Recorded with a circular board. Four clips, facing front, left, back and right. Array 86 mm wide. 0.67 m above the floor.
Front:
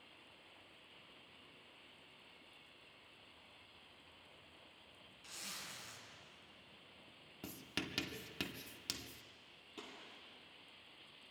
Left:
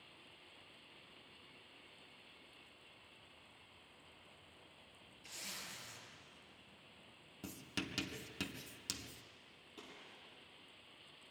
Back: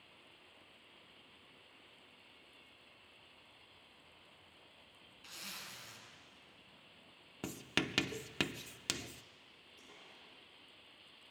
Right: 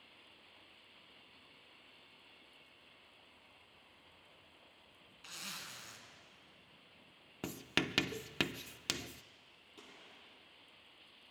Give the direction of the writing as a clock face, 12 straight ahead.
4 o'clock.